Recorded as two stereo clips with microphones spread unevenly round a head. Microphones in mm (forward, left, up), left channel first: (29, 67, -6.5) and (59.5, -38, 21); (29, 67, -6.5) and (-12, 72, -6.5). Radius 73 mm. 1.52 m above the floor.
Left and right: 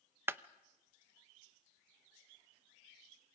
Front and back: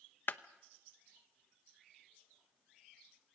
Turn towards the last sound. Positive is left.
turn(degrees=-30)